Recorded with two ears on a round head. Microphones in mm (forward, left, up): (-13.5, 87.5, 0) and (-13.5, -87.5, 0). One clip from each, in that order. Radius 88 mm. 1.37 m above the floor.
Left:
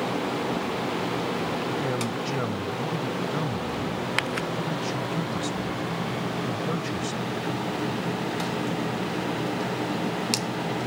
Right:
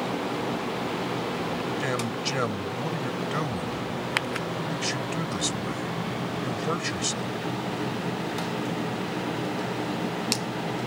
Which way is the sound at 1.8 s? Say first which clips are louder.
Even; 60° right (ahead or behind).